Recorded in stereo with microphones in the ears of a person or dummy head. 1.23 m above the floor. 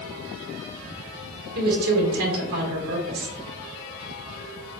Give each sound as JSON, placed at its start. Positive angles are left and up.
{"t": 1.6, "sound": "a woman speaking", "side_deg": -50, "distance_m": 1.7}